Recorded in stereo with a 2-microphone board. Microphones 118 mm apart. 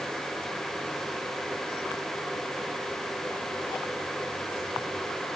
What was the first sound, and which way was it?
Only background noise.